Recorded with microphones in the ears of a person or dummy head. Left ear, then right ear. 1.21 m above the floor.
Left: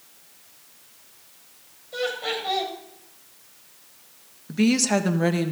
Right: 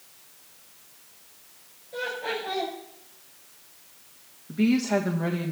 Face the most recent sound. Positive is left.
turn(degrees=75)  # may be behind; listen again after turning